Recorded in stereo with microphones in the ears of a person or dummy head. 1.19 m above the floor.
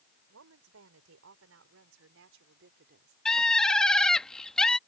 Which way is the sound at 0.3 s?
75° right (ahead or behind).